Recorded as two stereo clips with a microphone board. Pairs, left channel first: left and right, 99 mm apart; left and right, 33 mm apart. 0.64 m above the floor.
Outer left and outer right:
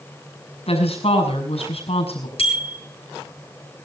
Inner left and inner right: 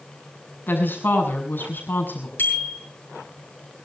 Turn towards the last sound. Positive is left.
turn(degrees=70)  # may be behind; listen again after turning